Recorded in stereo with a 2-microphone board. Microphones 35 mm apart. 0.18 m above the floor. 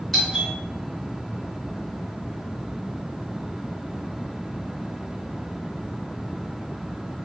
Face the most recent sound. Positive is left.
turn(degrees=5)  # may be behind; listen again after turning